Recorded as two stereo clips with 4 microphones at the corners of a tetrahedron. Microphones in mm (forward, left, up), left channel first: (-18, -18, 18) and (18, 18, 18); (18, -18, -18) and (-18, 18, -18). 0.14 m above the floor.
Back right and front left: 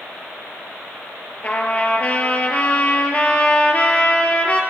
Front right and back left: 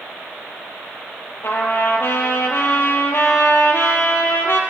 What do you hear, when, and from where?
1.4 s a trumpet: 75° right, 1.8 m